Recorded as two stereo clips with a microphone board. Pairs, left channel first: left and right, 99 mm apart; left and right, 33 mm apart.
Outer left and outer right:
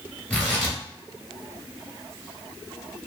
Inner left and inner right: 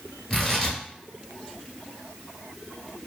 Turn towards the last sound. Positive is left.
turn(degrees=15)  # may be behind; listen again after turning